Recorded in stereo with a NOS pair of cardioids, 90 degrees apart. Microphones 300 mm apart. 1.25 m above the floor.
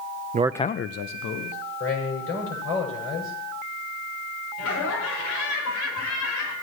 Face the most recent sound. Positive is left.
turn(degrees=70)